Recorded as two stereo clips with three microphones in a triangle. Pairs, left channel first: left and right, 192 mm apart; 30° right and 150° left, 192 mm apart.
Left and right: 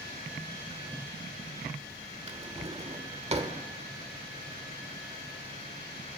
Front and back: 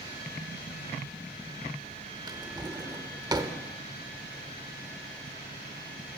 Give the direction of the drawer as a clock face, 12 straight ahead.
5 o'clock.